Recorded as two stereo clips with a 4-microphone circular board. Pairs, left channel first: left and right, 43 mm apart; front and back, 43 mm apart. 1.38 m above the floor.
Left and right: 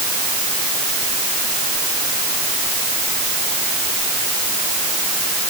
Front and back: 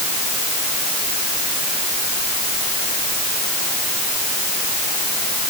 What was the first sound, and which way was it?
Only background noise.